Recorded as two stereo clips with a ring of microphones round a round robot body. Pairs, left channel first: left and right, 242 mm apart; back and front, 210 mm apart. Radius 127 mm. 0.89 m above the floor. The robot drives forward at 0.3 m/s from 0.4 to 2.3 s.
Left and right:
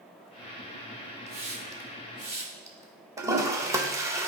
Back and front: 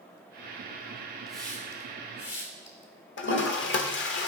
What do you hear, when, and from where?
1.3 s a hiss: 85° right, 0.6 m; by 2.9 s 145° right, 0.6 m
3.2 s a toilet flushing: 165° right, 0.8 m